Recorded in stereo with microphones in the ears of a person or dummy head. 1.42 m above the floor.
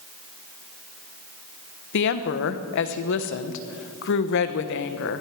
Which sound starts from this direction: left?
A woman speaking, at 1.9 s.